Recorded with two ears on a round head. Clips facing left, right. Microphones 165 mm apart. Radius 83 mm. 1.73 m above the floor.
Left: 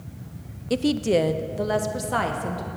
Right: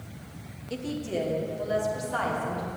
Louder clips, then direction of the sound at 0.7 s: Left 10 dB; 65° left (ahead or behind).